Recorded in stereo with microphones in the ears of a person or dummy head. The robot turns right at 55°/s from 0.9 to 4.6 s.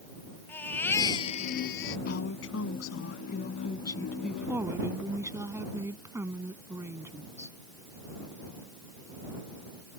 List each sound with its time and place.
0.5 s a baby crying: 20° left; by 2.0 s 80° left
2.1 s a woman speaking: 60° left; by 7.6 s 160° right